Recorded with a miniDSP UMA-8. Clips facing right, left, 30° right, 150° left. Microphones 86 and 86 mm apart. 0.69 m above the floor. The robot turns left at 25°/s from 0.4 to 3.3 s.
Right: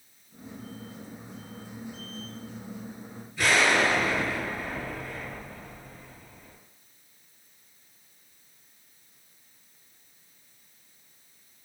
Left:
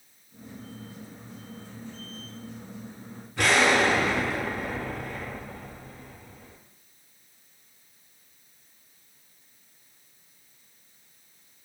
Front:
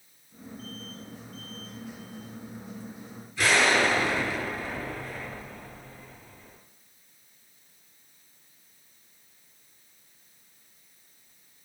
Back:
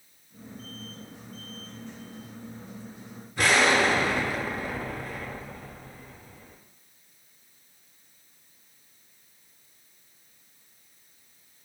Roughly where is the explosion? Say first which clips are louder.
Left 2 dB, back 1 dB; left.